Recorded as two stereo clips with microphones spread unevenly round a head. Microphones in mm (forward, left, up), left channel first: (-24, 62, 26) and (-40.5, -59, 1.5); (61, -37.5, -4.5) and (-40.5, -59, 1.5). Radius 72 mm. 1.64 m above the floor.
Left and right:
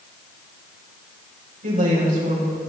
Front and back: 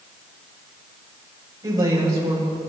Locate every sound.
1.6 s a woman speaking: 115° right, 6 m